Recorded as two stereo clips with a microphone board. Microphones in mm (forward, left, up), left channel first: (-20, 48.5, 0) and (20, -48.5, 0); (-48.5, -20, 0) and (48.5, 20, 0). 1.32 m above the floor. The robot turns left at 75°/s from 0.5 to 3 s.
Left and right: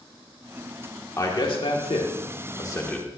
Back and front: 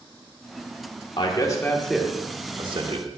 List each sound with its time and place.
1.2 s a man speaking: 170° left, 1.3 m; by 3.1 s 35° left, 1.3 m